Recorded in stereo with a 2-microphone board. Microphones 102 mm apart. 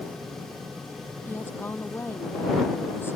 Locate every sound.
1.3 s a woman speaking: 20° left (ahead or behind)